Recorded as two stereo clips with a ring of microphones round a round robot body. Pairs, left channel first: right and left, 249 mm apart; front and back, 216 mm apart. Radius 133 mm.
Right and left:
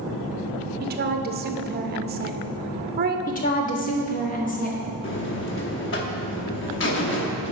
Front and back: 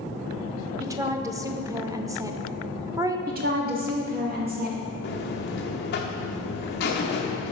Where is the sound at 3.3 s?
140° right, 1.3 m.